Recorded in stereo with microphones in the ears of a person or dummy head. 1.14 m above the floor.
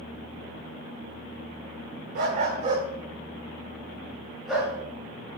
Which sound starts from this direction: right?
A dog barking, at 2.1 s.